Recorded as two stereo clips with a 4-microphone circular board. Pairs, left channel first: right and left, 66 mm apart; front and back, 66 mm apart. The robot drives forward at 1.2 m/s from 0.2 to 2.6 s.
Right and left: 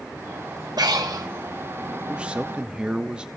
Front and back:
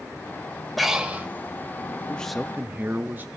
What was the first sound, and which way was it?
Breathing, 90° left.